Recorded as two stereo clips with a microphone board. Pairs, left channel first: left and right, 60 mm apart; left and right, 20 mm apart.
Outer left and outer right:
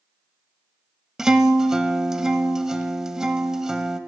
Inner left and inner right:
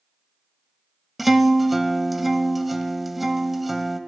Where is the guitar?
10° right (ahead or behind), 0.6 m.